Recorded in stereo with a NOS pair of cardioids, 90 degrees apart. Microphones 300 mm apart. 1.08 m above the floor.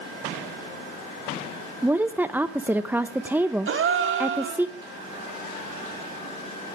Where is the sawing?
No sawing in this recording.